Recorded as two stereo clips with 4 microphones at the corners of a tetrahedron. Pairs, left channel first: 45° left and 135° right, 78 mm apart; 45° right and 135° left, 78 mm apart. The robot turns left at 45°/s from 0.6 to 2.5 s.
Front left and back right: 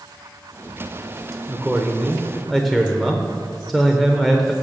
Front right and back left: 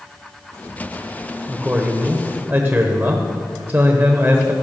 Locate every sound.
1.5 s a man speaking: 175° left, 1.0 m; by 4.5 s 130° left, 1.0 m